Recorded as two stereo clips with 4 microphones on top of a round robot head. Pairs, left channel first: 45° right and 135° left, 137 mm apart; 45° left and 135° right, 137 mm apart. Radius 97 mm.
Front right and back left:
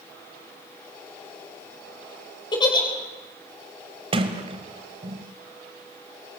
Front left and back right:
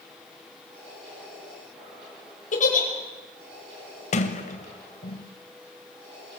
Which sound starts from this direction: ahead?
A giggle, at 2.5 s.